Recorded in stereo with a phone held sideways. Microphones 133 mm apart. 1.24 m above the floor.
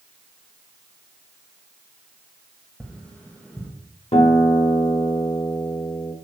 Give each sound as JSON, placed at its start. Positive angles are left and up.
{"t": 2.8, "sound": "tapping", "side_deg": 10, "distance_m": 1.3}
{"t": 4.1, "sound": "a guitar", "side_deg": 50, "distance_m": 1.2}